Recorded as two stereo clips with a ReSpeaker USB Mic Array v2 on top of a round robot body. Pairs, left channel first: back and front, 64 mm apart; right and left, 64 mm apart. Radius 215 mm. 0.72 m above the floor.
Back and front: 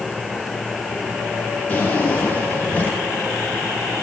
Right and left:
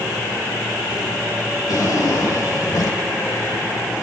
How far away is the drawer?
About 4.5 m.